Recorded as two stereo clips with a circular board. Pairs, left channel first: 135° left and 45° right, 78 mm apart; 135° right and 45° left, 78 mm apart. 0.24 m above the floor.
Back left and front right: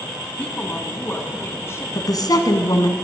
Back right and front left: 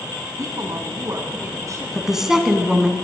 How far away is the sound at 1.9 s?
About 1.8 m.